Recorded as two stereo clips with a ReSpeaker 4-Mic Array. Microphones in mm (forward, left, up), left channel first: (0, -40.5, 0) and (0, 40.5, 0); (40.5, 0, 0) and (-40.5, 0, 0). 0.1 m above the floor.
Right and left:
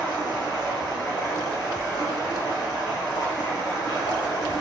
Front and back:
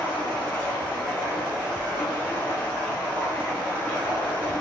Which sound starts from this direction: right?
Running water, at 0.0 s.